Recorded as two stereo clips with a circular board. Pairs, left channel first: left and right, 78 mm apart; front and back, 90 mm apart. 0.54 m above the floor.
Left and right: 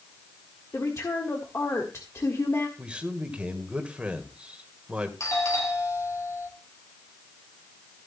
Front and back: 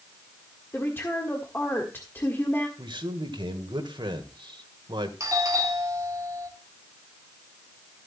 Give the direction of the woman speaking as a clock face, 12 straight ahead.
10 o'clock.